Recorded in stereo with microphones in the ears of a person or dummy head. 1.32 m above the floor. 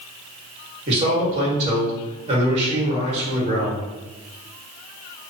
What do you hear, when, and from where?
0.9 s a man speaking: 35° right (ahead or behind), 1.8 m